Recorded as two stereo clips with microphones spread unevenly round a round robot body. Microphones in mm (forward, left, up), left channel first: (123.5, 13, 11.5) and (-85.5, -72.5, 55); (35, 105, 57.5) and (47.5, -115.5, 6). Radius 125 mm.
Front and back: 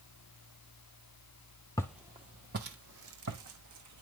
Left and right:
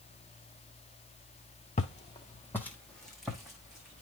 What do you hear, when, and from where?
1.8 s footsteps: 105° left, 0.5 m; by 4.0 s 175° right, 1.9 m